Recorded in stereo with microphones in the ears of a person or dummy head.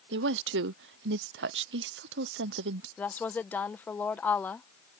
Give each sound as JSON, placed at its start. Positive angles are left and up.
{"t": 0.1, "sound": "a woman speaking", "side_deg": -75}
{"t": 3.0, "sound": "a woman speaking", "side_deg": 10}